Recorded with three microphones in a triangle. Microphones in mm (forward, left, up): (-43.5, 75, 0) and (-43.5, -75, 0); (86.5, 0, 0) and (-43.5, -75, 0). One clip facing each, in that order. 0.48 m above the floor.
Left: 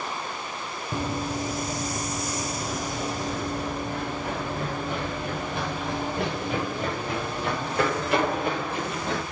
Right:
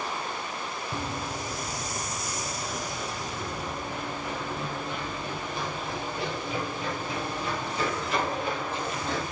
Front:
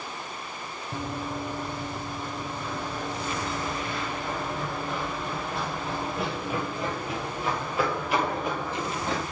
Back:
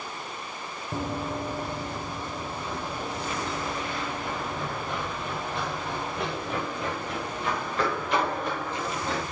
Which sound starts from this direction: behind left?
Running footsteps, at 0.9 s.